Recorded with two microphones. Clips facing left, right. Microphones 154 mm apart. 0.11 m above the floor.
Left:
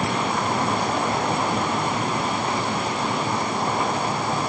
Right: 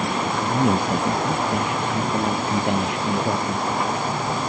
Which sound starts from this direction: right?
A man speaking, at 0.5 s.